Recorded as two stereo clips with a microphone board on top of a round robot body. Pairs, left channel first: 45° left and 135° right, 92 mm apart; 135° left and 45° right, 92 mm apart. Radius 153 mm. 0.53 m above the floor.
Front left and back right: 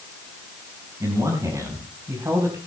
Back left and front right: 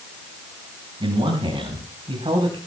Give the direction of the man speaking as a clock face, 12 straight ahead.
3 o'clock.